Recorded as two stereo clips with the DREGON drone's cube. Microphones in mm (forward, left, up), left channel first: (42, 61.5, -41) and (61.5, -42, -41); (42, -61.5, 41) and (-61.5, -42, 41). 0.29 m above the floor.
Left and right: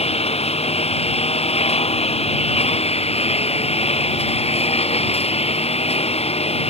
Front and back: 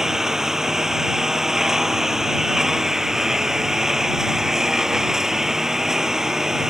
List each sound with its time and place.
0.0 s a lawn mower: 85° left